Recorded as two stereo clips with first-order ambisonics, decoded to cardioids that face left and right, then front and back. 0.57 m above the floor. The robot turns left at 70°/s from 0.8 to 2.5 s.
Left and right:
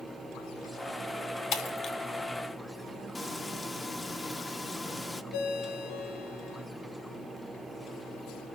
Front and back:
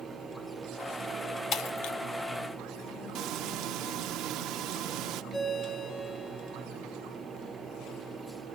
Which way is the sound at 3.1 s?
170° left.